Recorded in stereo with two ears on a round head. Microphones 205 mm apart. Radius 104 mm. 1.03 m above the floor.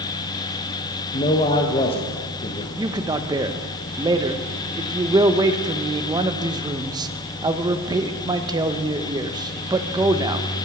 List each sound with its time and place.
1.1 s a man speaking: 25° left (ahead or behind), 1.2 m
2.8 s a man speaking: 20° right (ahead or behind), 0.9 m